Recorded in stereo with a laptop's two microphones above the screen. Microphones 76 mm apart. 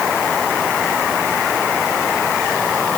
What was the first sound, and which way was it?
Only background noise.